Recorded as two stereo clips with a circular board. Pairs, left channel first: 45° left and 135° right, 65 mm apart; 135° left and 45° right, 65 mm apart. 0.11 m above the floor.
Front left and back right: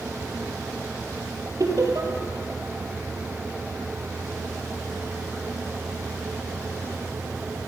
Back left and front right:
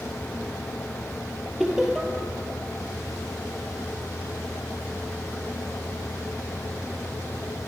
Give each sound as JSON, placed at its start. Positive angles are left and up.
{"t": 1.6, "sound": "laughter", "azimuth_deg": -130, "distance_m": 2.5}